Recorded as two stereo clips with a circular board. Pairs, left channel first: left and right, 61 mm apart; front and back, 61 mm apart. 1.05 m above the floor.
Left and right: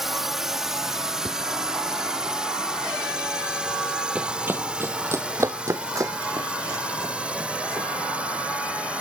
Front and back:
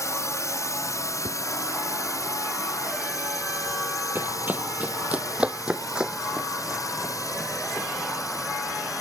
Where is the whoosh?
170° left.